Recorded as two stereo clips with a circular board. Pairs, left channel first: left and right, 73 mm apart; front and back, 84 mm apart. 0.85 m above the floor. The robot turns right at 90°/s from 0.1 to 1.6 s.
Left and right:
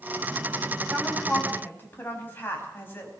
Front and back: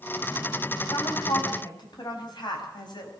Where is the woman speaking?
35° right, 5.5 m; by 3.1 s 30° left, 5.5 m.